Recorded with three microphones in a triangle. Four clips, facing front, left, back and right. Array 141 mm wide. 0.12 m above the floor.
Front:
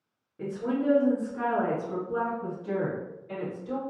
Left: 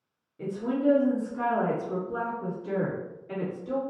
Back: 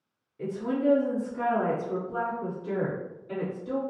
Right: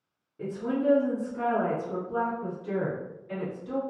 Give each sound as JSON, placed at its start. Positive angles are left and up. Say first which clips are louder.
{"t": 0.4, "sound": "a woman speaking", "louder": "left 1 dB, back 1 dB", "azimuth_deg": -15, "distance_m": 1.4}